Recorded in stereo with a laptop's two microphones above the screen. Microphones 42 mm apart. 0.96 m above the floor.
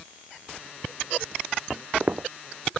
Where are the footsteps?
45° right (ahead or behind).